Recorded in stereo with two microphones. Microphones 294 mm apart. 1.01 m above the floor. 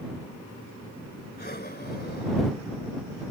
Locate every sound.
1.4 s breathing: 30° left (ahead or behind)